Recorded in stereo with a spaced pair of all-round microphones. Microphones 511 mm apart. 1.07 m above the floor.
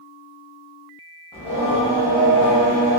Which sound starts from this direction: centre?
Singing, at 1.3 s.